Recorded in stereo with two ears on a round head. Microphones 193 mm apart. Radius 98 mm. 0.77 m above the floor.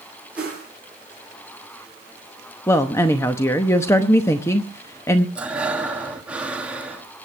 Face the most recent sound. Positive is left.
turn(degrees=-5)  # may be behind; listen again after turning